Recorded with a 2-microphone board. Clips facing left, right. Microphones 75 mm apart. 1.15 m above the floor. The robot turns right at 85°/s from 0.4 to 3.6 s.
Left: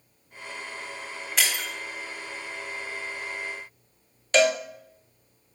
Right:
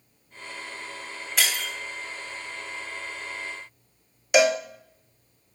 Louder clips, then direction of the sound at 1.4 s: Right 1 dB; 5° right (ahead or behind).